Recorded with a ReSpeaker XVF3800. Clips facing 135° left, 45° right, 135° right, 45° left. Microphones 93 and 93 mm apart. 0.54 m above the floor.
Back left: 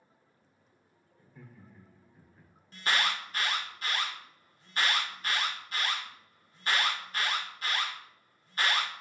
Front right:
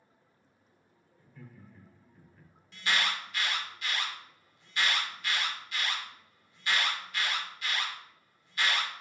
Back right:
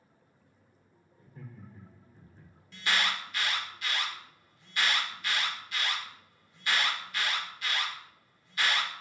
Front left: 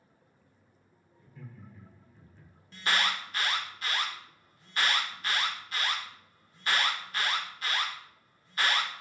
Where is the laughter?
160° right, 1.0 m.